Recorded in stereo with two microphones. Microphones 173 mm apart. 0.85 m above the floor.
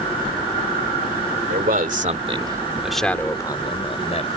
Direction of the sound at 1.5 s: 60° right (ahead or behind).